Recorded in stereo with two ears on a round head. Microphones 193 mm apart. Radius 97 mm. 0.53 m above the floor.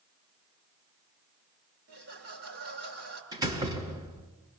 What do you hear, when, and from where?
1.9 s laughter: 50° right (ahead or behind), 8 m
3.3 s a door slam: 15° right (ahead or behind), 4 m